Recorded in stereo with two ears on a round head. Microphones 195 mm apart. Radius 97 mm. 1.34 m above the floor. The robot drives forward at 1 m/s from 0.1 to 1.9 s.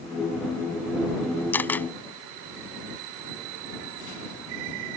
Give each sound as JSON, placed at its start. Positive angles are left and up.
{"t": 1.5, "sound": "a camera shutter", "side_deg": 10}